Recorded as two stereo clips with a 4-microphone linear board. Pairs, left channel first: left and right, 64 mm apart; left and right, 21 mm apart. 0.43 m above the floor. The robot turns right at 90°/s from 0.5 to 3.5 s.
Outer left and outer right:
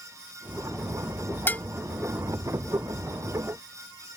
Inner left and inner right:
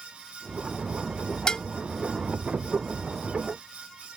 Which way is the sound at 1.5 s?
35° left (ahead or behind).